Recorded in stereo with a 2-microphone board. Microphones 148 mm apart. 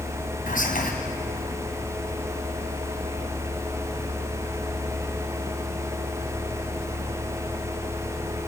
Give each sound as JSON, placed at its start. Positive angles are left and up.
{"t": 0.5, "sound": "whispering", "side_deg": 70, "distance_m": 3.5}